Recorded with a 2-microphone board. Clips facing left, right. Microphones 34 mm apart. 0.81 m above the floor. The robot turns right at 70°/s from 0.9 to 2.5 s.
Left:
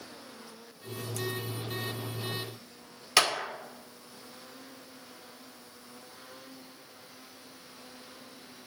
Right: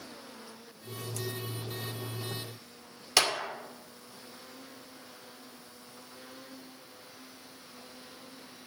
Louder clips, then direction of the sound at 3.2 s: Left 2 dB; 10° left (ahead or behind).